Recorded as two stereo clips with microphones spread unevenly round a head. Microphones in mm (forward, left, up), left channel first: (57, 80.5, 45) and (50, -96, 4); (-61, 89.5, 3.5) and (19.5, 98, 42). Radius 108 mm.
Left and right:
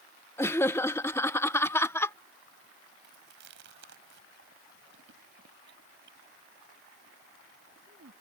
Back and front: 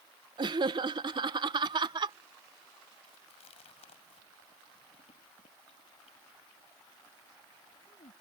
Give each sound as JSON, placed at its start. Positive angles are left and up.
{"t": 0.4, "sound": "laughter", "azimuth_deg": 15}
{"t": 3.0, "sound": "chewing", "azimuth_deg": -140}